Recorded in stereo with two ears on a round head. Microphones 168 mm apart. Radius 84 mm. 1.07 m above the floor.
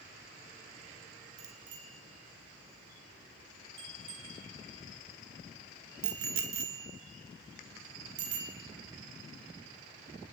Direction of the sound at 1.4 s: 35° right (ahead or behind).